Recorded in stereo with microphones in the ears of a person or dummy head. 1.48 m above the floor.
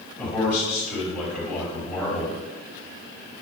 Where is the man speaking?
5° right (ahead or behind), 3.5 m.